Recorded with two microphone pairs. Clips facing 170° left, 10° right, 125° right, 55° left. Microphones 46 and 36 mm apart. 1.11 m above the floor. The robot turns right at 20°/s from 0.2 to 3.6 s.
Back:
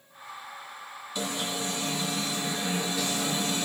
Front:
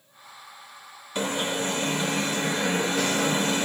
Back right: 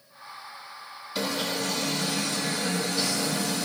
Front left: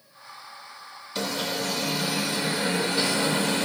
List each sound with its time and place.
1.1 s an alarm: 40° right, 0.6 m; by 3.6 s 10° left, 0.6 m